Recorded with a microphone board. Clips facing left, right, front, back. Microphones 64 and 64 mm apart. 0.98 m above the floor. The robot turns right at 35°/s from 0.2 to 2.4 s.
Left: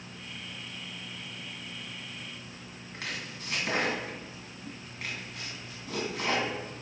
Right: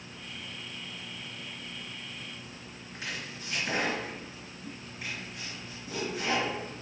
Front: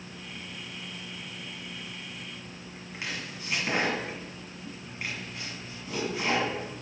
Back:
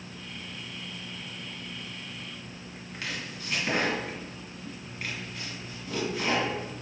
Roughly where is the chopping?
Left.